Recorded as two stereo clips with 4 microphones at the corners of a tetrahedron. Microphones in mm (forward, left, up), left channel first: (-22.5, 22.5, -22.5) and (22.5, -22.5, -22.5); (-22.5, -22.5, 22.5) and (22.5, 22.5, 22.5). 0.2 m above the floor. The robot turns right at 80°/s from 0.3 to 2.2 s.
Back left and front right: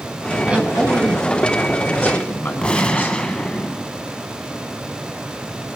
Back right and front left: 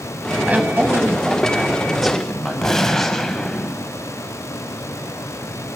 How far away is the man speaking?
About 1.4 m.